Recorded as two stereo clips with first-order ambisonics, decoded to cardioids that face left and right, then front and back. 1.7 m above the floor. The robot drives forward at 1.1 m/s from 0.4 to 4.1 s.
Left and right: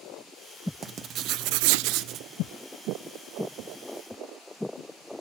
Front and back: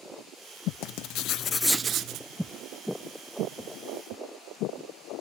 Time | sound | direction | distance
0.8 | writing | 25° right | 1.1 m